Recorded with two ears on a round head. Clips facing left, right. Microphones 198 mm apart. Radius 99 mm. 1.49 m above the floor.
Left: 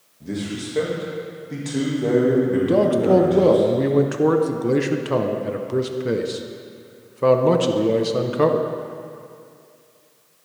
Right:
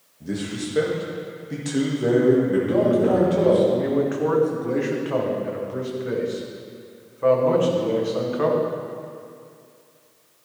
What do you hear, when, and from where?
0.2 s a man speaking: 5° right (ahead or behind), 2.0 m
2.7 s a man speaking: 50° left (ahead or behind), 0.9 m